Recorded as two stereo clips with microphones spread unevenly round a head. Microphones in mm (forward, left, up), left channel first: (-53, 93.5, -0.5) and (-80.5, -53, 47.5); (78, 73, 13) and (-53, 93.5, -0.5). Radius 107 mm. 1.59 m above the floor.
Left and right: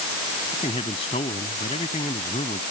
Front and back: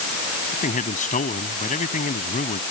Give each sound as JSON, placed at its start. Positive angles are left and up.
{"t": 0.5, "sound": "a man speaking", "azimuth_deg": 10}